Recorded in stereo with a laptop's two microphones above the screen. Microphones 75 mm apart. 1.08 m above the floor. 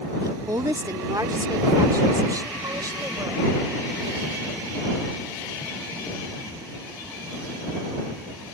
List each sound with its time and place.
0.2 s a woman speaking: 55° right (ahead or behind)